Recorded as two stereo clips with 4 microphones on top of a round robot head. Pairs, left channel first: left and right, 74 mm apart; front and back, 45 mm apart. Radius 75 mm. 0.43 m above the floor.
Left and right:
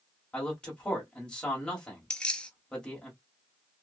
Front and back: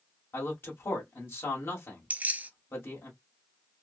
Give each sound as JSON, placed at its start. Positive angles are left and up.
{"t": 0.3, "sound": "a man speaking", "azimuth_deg": 10, "distance_m": 2.0}
{"t": 2.1, "sound": "keys jangling", "azimuth_deg": 160, "distance_m": 0.9}